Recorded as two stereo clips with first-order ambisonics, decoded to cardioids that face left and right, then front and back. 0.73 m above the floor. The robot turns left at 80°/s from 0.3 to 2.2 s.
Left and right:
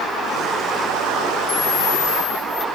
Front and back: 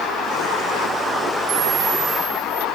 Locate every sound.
1.5 s a camera shutter: 160° left; by 2.6 s 100° left